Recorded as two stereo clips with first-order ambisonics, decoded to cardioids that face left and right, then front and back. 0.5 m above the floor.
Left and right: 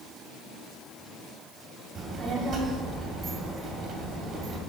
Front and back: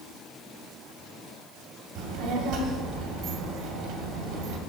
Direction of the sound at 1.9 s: 155° right.